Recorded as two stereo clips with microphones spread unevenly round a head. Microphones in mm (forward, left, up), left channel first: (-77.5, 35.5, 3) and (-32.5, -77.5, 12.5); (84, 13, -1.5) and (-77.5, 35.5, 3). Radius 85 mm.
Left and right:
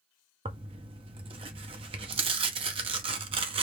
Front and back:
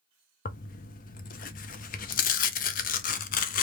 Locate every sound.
0.5 s tearing paper: 35° right, 0.6 m